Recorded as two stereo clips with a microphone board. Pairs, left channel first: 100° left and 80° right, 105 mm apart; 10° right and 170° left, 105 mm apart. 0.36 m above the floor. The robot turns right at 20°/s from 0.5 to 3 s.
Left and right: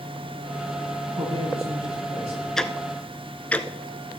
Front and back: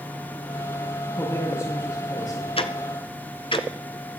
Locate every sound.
1.2 s a woman speaking: 70° right, 8.5 m; by 2.5 s 45° right, 8.5 m
2.6 s ticking: 15° left, 1.0 m; by 4.2 s 25° left, 1.0 m